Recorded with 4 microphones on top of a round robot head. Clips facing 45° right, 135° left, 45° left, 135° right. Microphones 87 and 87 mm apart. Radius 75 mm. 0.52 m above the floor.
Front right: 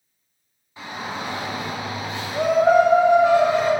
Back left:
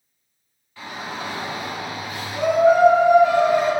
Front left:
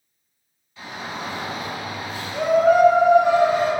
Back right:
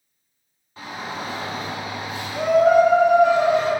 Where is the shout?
110° right, 1.6 m; by 3.7 s 5° left, 1.4 m.